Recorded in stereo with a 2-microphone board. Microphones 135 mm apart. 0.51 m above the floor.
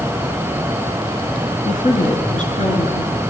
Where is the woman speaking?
70° left (ahead or behind), 5.5 m; by 3.2 s 60° left (ahead or behind), 7 m.